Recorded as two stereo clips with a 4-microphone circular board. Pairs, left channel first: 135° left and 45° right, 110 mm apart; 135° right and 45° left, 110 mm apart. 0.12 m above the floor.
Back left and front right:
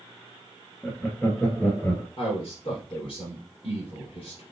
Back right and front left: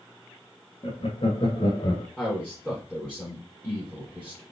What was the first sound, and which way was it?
Laughter, 150° right.